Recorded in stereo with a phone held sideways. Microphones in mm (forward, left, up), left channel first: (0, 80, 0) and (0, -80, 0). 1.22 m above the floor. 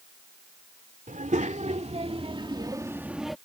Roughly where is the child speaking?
Right.